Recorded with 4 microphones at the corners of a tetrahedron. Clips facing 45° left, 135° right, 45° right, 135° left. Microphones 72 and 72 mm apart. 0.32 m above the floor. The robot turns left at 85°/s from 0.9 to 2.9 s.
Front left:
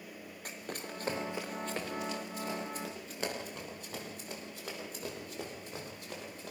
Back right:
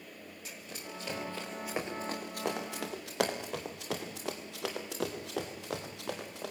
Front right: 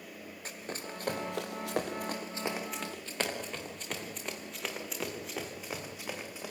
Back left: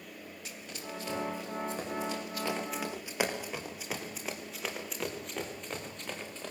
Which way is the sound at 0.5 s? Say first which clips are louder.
Front left 4 dB, front right 3 dB; 5° left.